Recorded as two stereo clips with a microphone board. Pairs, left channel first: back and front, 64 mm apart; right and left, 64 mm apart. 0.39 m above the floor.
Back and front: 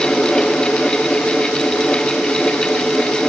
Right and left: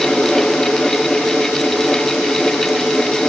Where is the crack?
I don't hear a crack.